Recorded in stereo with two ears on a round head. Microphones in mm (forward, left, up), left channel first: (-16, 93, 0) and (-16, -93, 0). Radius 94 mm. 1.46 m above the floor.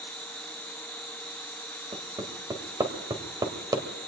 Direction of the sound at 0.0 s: 20° right (ahead or behind).